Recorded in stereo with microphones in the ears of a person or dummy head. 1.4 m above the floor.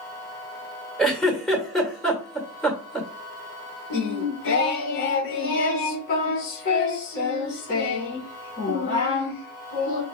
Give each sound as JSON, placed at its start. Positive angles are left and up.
{"t": 1.0, "sound": "a giggle", "side_deg": 0, "distance_m": 1.6}
{"t": 3.9, "sound": "singing", "side_deg": 65, "distance_m": 2.5}